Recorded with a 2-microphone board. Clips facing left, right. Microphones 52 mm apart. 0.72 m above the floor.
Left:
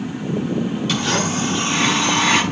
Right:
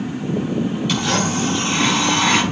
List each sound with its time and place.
0.9 s a blender: 5° right (ahead or behind), 5 m